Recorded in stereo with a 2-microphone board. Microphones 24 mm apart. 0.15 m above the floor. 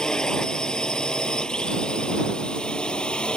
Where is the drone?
35° left (ahead or behind); by 3.4 s 50° left (ahead or behind).